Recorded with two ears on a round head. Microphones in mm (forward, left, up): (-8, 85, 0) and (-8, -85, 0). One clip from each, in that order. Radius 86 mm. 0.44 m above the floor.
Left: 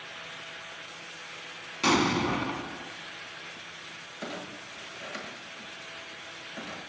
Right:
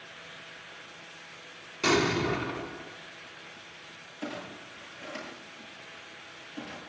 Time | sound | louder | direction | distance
1.8 | an explosion | left 1 dB | 15° left (ahead or behind) | 1.0 m
4.2 | a clunk | even | 75° left (ahead or behind) | 9 m